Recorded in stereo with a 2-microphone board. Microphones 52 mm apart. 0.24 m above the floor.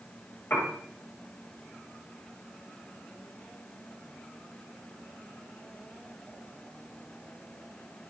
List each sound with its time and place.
0.5 s a piano: 40° left (ahead or behind), 7.5 m